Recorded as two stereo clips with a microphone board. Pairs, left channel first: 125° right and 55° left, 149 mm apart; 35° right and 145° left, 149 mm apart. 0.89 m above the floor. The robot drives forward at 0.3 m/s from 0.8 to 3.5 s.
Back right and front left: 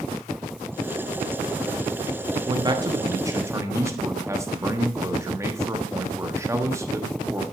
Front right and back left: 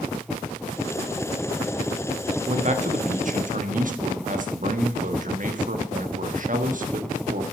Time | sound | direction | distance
2.5 | a man speaking | 110° left | 1.1 m